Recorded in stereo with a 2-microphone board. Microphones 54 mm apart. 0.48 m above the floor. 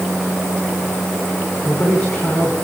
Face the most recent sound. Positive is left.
turn(degrees=20)  # may be behind; listen again after turning